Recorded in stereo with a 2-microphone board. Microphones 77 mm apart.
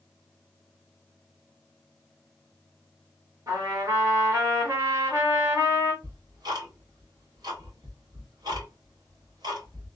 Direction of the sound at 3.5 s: 45° right (ahead or behind).